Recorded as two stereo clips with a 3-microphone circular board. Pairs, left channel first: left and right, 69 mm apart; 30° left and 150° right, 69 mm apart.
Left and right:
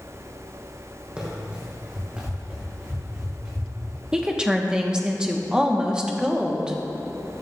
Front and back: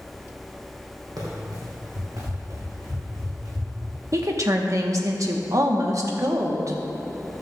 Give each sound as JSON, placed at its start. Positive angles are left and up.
{"t": 1.2, "sound": "running footsteps", "azimuth_deg": -165, "distance_m": 3.0}
{"t": 4.1, "sound": "a woman speaking", "azimuth_deg": -165, "distance_m": 1.1}